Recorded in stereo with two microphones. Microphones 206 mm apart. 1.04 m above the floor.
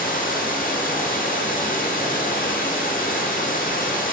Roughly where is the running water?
Left.